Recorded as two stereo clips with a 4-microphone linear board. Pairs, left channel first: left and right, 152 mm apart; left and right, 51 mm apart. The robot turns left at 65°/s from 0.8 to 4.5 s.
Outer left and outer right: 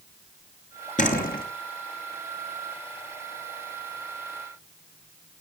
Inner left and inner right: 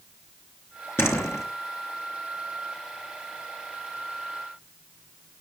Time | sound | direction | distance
1.0 | a door slam | 125° left | 4 m